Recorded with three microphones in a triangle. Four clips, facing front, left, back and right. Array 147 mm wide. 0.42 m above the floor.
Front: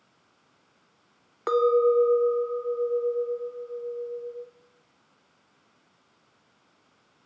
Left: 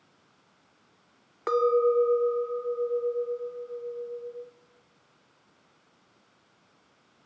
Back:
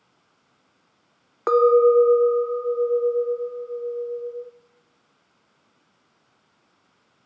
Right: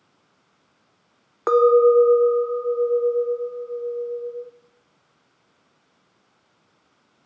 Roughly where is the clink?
Behind right.